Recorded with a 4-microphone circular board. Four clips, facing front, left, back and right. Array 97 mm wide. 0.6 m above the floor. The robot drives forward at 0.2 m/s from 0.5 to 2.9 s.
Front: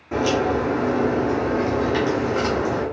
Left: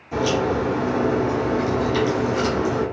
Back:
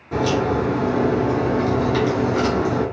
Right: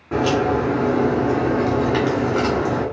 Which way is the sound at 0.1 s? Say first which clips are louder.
Right 2 dB, back 1 dB; 80° right.